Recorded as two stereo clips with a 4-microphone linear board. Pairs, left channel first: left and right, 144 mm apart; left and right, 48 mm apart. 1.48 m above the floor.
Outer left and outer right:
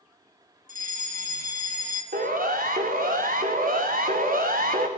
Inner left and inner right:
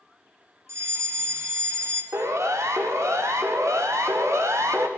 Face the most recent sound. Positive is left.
turn(degrees=-80)